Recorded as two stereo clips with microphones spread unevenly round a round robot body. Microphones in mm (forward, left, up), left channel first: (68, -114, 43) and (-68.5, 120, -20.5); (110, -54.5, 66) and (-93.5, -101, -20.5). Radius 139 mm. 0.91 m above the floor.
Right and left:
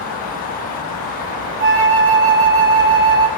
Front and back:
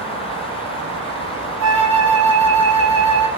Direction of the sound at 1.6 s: 175° left.